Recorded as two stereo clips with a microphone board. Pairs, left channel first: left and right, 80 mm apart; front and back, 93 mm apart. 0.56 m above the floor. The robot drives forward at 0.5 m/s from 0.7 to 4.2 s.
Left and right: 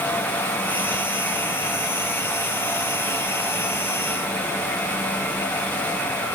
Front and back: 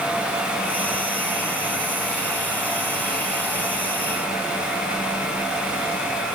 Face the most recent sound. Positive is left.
No sound to turn to.